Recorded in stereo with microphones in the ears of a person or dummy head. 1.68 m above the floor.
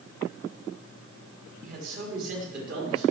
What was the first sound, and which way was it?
A man speaking, 40° right (ahead or behind).